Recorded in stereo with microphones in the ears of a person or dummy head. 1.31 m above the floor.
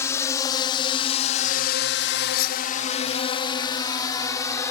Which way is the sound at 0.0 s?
15° left (ahead or behind).